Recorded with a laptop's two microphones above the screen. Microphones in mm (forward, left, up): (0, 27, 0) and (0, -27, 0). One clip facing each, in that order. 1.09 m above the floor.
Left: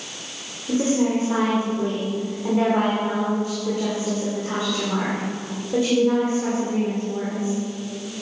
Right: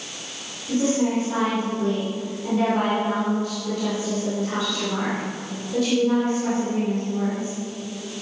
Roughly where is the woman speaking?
Left.